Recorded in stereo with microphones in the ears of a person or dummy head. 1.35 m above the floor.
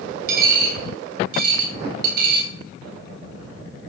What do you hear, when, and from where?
0.3 s a dropped coin: 55° right (ahead or behind), 2.5 m